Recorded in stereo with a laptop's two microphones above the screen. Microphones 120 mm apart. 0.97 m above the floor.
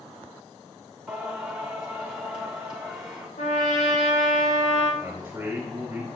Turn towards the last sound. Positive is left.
turn(degrees=-15)  # may be behind; listen again after turning